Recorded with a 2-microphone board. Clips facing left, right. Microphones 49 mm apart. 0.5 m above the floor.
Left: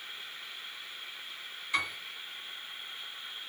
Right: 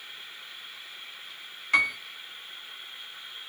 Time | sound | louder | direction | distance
1.7 | a piano | right 9 dB | 65° right (ahead or behind) | 0.7 m